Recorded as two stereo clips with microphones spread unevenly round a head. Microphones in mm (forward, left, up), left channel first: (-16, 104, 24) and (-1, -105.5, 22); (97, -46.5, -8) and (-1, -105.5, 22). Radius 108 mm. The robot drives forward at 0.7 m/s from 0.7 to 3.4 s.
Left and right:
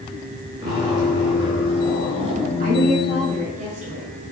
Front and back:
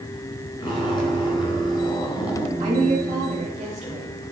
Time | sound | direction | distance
0.6 | a zipper | 15° right | 3.5 m
2.6 | a woman speaking | 130° right | 1.8 m